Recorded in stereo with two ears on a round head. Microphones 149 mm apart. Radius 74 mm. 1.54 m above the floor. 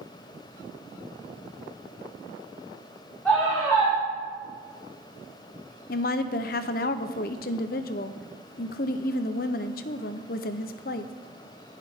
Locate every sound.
3.2 s a scream: 5° left (ahead or behind), 5 m
5.9 s a woman speaking: 60° left (ahead or behind), 0.6 m